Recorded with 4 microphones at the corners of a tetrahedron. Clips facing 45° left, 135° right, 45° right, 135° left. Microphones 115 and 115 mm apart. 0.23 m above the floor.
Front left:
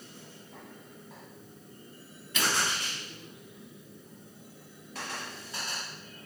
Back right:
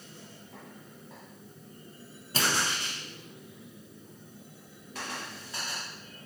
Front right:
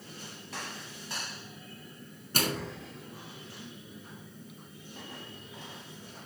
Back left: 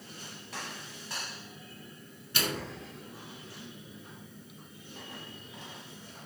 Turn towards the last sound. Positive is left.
turn(degrees=-85)